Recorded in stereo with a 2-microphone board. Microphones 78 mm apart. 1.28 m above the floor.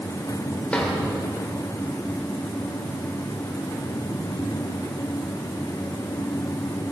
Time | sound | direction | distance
0.7 | a drawer | 15° left (ahead or behind) | 2.5 m